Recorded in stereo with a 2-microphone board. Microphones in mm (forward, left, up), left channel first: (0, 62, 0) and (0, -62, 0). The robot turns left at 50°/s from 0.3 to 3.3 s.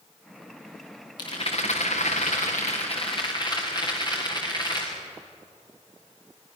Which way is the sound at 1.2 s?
145° left.